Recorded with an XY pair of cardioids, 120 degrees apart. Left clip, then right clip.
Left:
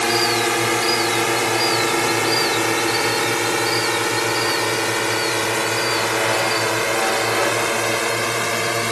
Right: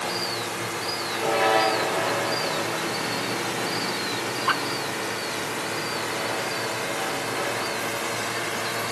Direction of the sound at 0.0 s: 65° left.